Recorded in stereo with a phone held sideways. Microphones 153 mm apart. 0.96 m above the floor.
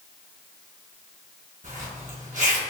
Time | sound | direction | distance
1.6 | a zipper | 55° right (ahead or behind) | 0.8 m